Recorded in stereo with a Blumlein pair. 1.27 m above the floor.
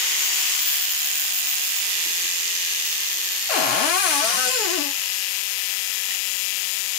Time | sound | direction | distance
3.5 | a cupboard door | 40° left | 0.6 m